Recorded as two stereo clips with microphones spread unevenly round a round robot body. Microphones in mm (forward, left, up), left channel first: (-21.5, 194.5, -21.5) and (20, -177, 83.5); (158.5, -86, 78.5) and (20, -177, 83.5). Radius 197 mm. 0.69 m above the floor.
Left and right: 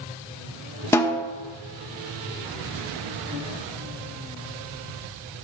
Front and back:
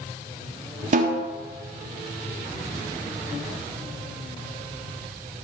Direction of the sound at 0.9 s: 170° left.